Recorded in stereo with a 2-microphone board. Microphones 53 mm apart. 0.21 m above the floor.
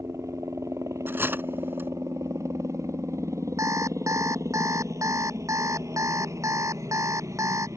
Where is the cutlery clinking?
45° right (ahead or behind).